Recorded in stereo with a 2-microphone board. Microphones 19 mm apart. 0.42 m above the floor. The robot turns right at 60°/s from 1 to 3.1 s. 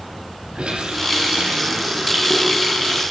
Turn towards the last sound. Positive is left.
turn(degrees=25)